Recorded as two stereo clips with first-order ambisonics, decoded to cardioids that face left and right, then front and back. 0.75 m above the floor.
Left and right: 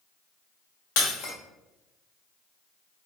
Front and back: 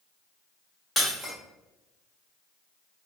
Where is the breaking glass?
85° left, 1.2 m.